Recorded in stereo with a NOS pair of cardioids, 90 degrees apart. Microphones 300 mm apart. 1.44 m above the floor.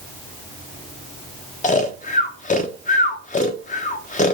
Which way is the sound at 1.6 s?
25° left.